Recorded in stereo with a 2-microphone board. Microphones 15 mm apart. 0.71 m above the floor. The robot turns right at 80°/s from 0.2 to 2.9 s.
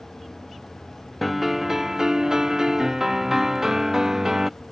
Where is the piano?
175° left; by 4.5 s 50° right.